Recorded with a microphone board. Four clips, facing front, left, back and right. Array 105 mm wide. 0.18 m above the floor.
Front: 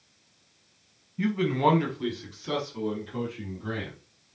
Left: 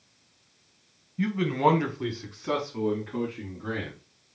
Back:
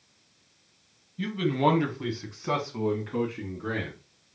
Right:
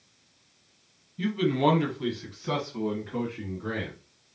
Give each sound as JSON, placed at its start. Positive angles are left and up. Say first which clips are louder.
{"t": 1.2, "sound": "a man speaking", "louder": "left 1 dB, front 1 dB", "azimuth_deg": 40, "distance_m": 1.2}